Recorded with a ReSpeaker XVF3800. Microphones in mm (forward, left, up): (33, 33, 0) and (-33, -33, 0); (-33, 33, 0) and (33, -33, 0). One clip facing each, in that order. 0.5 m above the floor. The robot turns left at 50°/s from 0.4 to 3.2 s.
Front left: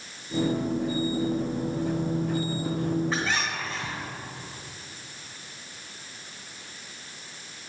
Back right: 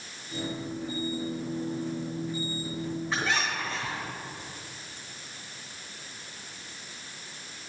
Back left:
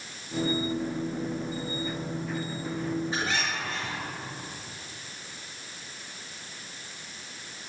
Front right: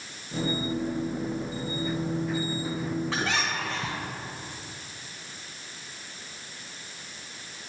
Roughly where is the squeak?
Ahead right.